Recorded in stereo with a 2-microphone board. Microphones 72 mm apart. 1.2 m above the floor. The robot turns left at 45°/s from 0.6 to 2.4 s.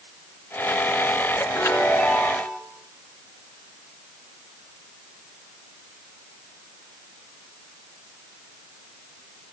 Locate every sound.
1.6 s a chime: 45° left, 3.5 m; by 2.6 s 5° left, 3.5 m